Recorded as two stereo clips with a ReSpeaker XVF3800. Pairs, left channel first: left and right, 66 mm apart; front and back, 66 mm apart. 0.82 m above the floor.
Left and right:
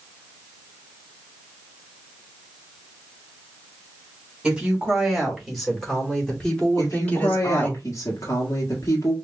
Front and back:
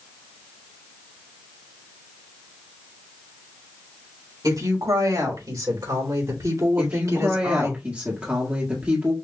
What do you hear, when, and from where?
4.4 s a woman speaking: 170° right, 3.5 m; by 7.8 s 145° left, 2.5 m
6.8 s a woman speaking: 115° left, 1.5 m